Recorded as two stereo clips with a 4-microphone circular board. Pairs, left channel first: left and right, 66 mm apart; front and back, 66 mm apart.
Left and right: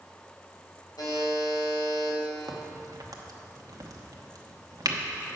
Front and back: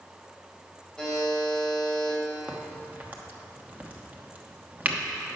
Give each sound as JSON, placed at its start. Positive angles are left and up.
{"t": 1.0, "sound": "a buzzer", "azimuth_deg": 80, "distance_m": 3.0}
{"t": 2.5, "sound": "a crack", "azimuth_deg": -115, "distance_m": 1.0}